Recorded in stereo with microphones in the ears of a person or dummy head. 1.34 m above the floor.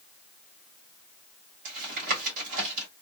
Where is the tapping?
45° right (ahead or behind), 2 m.